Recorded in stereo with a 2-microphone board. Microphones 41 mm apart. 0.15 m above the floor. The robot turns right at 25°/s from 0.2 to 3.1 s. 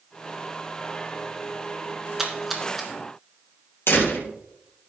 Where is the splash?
5° right (ahead or behind), 2 m; by 2.9 s 5° left (ahead or behind), 2 m.